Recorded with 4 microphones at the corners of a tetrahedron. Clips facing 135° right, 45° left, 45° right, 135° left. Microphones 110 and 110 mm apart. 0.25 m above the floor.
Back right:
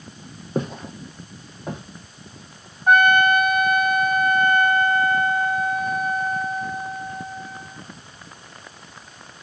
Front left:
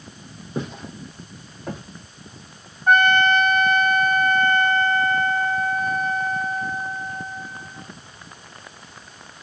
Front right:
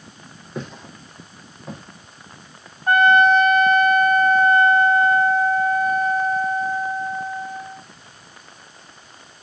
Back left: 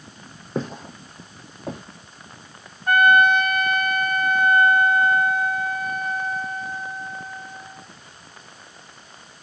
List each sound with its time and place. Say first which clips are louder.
0.6 s footsteps: back right 3 dB, back left 5 dB; 170° right, 0.6 m; by 1.8 s 155° left, 1.4 m
2.9 s a trumpet: back right 1 dB, front right 2 dB; 65° right, 0.5 m